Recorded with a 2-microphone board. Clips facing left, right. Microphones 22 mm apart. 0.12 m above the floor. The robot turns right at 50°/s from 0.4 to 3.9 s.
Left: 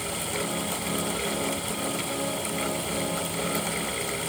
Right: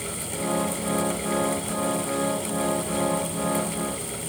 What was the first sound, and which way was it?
Only background noise.